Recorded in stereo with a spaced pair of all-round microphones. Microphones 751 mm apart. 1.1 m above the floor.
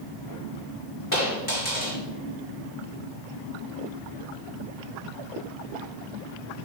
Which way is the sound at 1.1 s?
25° left (ahead or behind).